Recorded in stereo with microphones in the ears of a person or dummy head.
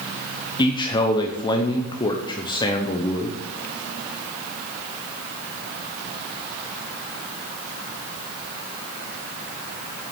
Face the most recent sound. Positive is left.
turn(degrees=20)  # may be behind; listen again after turning